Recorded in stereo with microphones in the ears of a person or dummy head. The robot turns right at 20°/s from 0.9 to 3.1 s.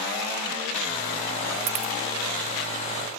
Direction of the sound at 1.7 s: 40° right (ahead or behind).